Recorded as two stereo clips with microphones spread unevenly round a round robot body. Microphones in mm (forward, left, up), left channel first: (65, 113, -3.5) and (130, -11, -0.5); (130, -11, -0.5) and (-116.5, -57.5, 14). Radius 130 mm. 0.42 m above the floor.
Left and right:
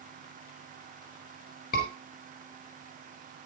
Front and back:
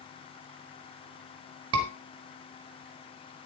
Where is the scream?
150° left, 3.5 m.